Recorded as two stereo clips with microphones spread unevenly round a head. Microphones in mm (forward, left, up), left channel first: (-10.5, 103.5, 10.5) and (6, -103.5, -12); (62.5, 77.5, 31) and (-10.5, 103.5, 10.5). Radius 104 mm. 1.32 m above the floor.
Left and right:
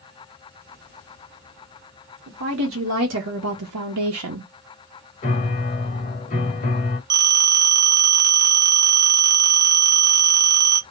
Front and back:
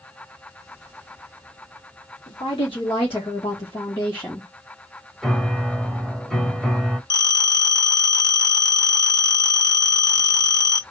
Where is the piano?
55° left, 1.5 m.